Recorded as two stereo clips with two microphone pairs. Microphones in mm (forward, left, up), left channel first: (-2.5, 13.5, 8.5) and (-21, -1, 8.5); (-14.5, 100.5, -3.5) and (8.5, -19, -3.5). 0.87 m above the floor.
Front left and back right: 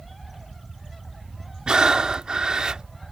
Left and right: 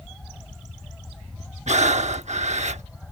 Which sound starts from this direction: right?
Breathing, at 1.7 s.